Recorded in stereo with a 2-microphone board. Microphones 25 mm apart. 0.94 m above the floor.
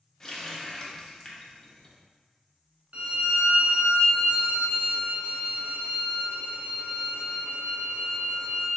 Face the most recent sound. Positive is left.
turn(degrees=-55)  # may be behind; listen again after turning